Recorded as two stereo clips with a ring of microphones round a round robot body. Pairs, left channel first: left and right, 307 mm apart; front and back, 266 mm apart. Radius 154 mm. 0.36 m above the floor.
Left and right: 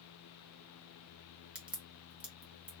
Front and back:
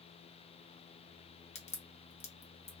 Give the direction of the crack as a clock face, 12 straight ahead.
12 o'clock.